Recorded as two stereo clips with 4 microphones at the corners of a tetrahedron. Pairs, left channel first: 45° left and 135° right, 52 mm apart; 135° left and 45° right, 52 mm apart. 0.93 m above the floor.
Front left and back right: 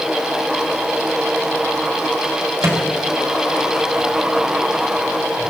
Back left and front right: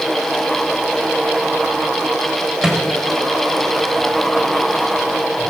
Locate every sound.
2.6 s a microwave: 120° right, 3 m